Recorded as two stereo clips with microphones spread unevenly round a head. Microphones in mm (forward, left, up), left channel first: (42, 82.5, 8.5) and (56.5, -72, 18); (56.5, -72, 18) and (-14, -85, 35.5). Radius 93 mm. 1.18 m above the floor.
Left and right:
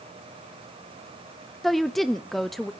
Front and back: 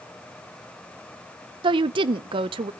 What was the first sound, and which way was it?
A woman speaking, 175° right.